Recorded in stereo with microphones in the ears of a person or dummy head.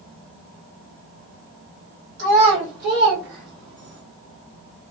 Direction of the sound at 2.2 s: 40° right (ahead or behind).